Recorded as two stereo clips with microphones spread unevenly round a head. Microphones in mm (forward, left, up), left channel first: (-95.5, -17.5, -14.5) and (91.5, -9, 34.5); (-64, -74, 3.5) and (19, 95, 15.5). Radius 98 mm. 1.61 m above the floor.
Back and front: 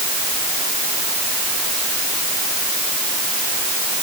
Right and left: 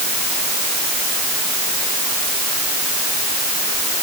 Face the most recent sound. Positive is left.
No sound to turn to.